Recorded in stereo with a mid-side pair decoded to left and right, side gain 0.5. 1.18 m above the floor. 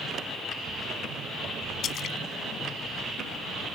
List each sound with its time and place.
1.8 s a splash: 60° left